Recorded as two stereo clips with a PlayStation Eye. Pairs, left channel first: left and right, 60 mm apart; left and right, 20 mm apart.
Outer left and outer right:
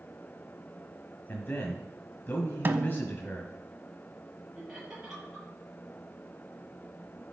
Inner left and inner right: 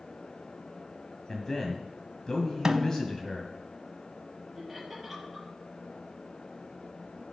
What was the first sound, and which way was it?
A man speaking, 30° left (ahead or behind).